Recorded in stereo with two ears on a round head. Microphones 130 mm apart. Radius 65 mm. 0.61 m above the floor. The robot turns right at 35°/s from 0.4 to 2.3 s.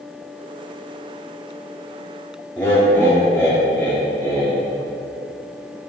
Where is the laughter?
15° left (ahead or behind), 1.1 m.